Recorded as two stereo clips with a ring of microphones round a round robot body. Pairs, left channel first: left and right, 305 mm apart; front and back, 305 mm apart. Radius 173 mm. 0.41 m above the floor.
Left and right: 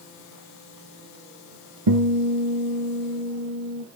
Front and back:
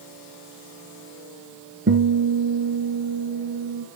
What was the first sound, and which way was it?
A guitar, 125° right.